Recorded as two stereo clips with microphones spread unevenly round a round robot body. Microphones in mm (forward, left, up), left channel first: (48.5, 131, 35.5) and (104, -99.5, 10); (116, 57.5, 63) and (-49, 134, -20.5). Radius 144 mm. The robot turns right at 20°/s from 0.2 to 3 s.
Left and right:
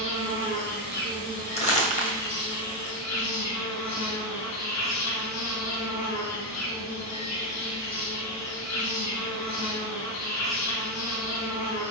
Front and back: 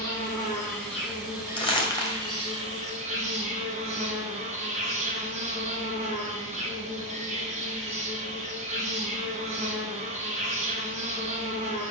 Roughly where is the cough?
No cough in this recording.